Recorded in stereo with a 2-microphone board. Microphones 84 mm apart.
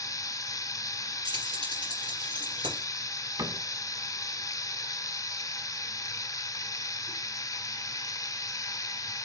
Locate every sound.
0.0 s running water: 45° left (ahead or behind), 0.8 m
1.2 s keys jangling: 70° right (ahead or behind), 3 m
3.4 s a cupboard door: 45° right (ahead or behind), 0.6 m